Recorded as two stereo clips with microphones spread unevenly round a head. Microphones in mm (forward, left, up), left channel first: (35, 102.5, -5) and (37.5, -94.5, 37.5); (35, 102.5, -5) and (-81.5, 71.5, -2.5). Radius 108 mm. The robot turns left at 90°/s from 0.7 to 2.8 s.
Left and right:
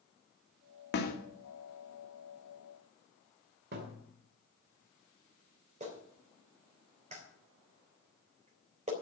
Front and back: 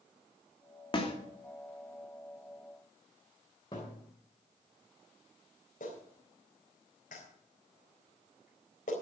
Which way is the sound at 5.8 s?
30° right.